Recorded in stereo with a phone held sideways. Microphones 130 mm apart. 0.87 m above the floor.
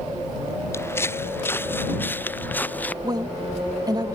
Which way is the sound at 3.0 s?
30° right (ahead or behind).